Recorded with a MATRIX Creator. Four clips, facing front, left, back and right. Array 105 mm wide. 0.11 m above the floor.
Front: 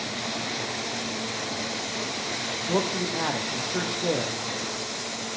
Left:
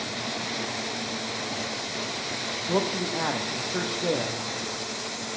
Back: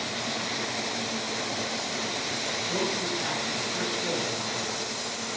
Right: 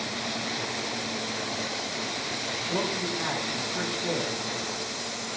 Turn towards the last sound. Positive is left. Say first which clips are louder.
# left 4 dB, front 5 dB
turn(degrees=45)